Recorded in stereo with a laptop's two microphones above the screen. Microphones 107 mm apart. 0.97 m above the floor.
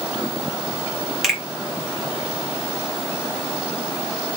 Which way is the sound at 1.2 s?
Centre (ahead or behind).